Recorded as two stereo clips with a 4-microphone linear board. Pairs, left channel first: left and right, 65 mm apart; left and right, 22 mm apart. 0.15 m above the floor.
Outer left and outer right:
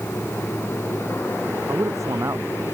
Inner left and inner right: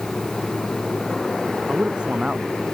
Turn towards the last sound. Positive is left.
turn(degrees=-55)  # may be behind; listen again after turning